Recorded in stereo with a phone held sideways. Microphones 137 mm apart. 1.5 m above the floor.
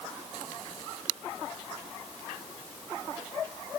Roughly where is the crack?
I don't hear a crack.